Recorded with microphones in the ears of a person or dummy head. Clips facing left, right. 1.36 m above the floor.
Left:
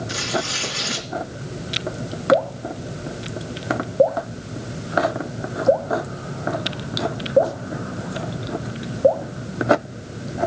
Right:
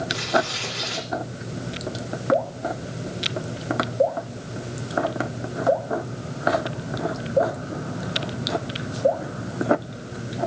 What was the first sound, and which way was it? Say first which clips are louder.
Tearing paper: right 3 dB; 55° left (ahead or behind).